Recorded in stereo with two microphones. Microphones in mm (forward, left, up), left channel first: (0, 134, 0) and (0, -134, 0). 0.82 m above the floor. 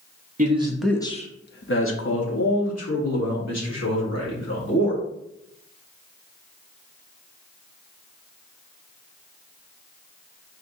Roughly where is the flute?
No flute in this recording.